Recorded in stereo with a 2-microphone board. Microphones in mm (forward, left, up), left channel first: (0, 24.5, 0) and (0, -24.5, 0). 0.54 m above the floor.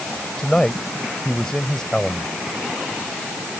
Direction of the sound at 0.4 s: 15° left (ahead or behind).